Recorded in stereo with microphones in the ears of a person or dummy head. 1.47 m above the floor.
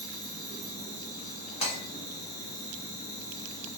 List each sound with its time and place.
0.0 s an insect: 15° right (ahead or behind), 1.3 m
1.6 s breaking glass: 30° left (ahead or behind), 2 m